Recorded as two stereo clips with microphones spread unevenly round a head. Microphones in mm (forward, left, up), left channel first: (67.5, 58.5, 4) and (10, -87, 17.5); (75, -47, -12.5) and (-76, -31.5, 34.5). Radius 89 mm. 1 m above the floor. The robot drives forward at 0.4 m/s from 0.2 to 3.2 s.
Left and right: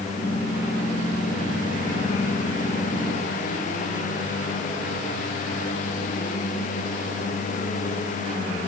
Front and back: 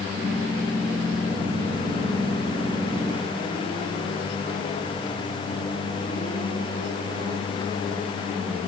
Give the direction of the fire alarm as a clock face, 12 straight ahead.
No fire alarm in this recording.